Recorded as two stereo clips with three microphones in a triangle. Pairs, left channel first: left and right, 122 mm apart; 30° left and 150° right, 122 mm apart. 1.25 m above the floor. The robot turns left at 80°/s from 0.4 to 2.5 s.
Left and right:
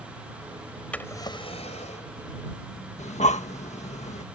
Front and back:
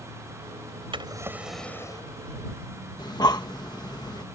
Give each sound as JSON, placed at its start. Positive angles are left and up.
{"t": 0.9, "sound": "a drawer", "azimuth_deg": 170}
{"t": 3.0, "sound": "breathing", "azimuth_deg": 85}